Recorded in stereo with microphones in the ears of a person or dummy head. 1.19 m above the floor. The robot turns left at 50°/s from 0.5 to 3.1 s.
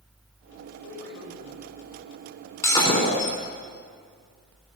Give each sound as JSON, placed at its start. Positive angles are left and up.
{"t": 0.8, "sound": "a man speaking", "azimuth_deg": 115, "distance_m": 5.0}
{"t": 2.6, "sound": "breaking glass", "side_deg": 10, "distance_m": 3.5}